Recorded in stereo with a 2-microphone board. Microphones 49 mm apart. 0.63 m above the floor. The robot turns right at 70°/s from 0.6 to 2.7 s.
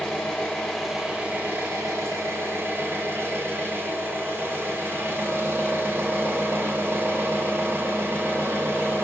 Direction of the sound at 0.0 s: 165° left.